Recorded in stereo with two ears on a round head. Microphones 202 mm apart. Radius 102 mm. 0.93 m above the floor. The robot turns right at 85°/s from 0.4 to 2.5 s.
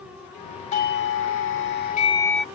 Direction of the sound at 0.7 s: 35° left.